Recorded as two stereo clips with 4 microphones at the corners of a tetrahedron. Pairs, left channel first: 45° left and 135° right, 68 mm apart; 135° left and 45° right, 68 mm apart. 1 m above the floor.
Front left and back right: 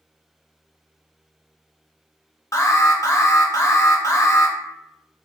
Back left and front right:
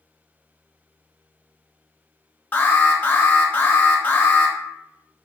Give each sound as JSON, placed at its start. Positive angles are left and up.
{"t": 2.5, "sound": "an alarm", "azimuth_deg": 75, "distance_m": 0.6}